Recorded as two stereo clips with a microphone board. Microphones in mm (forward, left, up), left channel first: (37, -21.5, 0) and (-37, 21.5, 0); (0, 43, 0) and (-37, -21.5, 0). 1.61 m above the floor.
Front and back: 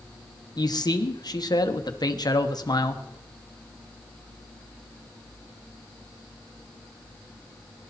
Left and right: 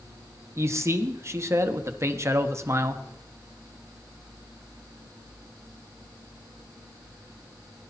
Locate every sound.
0.6 s a man speaking: 70° right, 1.3 m